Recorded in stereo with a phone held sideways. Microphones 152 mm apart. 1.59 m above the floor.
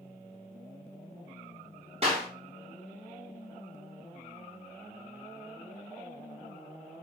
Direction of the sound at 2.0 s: 40° right (ahead or behind).